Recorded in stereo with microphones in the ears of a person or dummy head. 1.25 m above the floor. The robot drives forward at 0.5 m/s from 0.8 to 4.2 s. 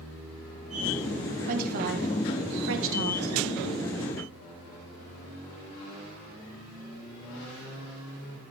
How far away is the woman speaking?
About 1.2 m.